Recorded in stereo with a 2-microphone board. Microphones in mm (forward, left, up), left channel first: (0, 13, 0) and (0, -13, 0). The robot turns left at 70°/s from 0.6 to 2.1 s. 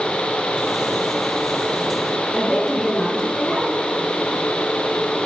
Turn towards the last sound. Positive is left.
turn(degrees=20)  # may be behind; listen again after turning